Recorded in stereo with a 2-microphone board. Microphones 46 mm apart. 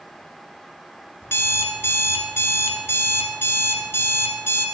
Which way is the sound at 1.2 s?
70° left (ahead or behind).